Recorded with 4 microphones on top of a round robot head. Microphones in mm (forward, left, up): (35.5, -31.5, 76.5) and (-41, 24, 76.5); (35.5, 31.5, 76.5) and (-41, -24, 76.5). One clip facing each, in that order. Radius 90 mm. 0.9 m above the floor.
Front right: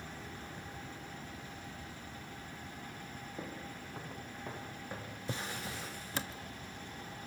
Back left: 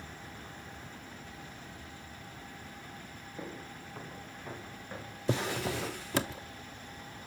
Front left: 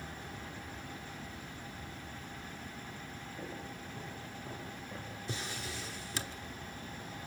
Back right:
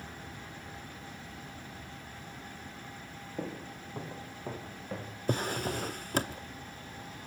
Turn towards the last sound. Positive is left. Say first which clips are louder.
# back left 10 dB, back right 12 dB
turn(degrees=170)